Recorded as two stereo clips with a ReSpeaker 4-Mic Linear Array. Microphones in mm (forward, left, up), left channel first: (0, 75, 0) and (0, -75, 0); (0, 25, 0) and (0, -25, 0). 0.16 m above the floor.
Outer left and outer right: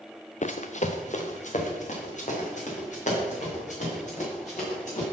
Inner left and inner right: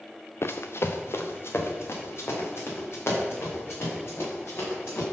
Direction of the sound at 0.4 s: 55° left (ahead or behind).